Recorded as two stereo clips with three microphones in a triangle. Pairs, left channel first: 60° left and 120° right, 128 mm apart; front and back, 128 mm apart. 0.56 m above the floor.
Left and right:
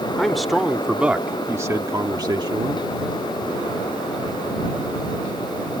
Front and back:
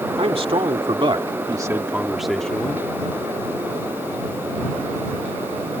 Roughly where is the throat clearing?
I don't hear throat clearing.